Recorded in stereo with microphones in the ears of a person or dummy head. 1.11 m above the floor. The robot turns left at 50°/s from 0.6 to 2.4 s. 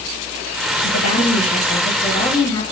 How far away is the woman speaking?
About 1.3 m.